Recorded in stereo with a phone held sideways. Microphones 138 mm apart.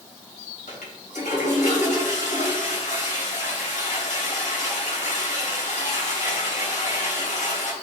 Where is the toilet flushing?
65° left (ahead or behind), 2.5 m.